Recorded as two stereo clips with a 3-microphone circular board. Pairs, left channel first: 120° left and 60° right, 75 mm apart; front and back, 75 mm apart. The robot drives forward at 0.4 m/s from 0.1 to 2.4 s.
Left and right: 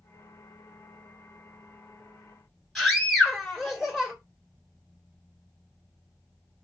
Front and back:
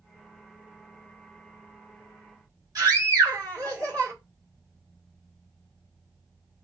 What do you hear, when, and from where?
2.8 s a scream: 155° right, 1.9 m